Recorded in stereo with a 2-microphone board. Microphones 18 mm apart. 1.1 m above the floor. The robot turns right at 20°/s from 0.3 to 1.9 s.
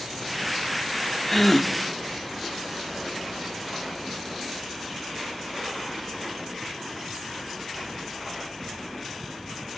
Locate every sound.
1.3 s a gasp: 5° left (ahead or behind), 0.7 m; by 1.7 s centre (ahead or behind), 0.7 m